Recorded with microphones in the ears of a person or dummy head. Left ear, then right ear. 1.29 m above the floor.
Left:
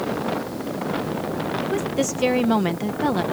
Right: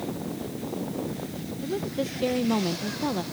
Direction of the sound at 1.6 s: 50° left (ahead or behind).